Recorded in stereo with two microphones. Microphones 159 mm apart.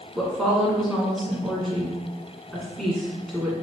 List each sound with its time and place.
0.1 s a woman speaking: centre (ahead or behind), 1.4 m